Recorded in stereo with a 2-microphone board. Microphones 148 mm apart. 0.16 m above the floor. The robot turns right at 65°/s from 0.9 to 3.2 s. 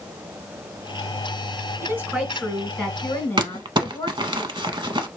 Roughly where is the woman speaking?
Centre.